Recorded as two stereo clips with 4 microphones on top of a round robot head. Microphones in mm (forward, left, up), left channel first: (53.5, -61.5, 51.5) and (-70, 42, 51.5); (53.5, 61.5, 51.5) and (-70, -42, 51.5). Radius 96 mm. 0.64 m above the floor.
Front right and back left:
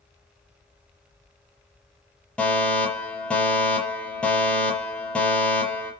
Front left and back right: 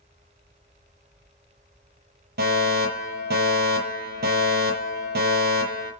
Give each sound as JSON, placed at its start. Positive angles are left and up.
{"t": 2.4, "sound": "a fire alarm", "azimuth_deg": -125, "distance_m": 7.0}